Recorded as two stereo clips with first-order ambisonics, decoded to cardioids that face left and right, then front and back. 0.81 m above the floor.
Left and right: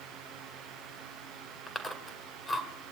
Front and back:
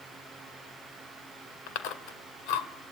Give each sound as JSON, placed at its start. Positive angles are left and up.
{"t": 1.7, "sound": "chewing", "azimuth_deg": 15, "distance_m": 1.8}